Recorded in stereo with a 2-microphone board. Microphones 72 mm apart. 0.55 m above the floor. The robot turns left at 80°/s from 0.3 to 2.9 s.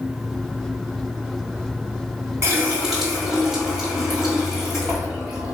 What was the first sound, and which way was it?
A running tap, 135° right.